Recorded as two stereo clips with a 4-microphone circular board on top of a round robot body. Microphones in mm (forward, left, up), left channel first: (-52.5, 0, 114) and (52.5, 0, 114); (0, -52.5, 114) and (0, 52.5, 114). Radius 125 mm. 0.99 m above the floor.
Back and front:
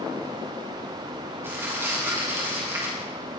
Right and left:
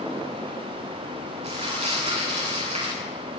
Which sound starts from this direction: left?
Crumpling, at 1.4 s.